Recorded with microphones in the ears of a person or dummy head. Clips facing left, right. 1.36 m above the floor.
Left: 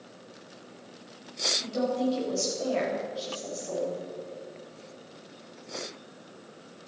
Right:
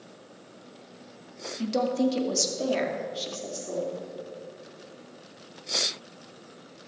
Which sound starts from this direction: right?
A woman speaking, at 1.6 s.